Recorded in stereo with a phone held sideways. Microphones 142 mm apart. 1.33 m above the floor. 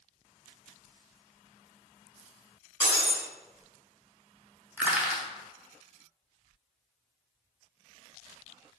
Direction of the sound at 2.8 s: 10° right (ahead or behind).